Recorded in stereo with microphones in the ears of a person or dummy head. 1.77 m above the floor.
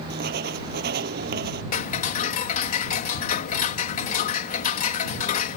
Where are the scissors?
I don't hear scissors.